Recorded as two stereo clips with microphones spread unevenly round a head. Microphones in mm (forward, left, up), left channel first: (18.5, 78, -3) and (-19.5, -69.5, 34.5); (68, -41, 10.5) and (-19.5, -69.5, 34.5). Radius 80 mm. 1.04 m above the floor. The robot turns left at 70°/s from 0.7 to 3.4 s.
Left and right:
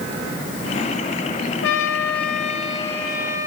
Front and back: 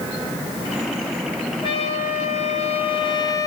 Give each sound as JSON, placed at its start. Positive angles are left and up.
{"t": 1.6, "sound": "a trumpet", "azimuth_deg": 85, "distance_m": 1.8}